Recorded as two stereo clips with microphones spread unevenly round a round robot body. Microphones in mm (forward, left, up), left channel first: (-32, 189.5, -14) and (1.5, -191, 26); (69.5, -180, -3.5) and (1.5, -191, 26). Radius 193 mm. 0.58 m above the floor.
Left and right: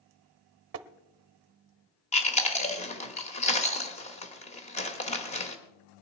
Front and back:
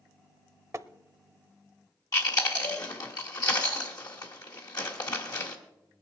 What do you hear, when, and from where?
0.7 s tapping: 135° right, 0.7 m
2.1 s chewing: 25° left, 1.4 m